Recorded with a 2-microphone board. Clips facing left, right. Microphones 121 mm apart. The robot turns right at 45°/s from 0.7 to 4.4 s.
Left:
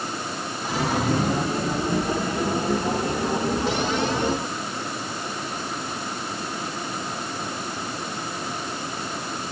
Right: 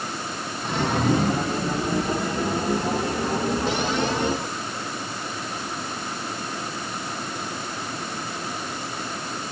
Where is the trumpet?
No trumpet in this recording.